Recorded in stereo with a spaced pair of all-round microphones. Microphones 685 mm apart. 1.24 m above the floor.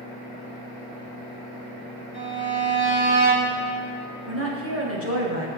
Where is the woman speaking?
20° right (ahead or behind), 1.2 m.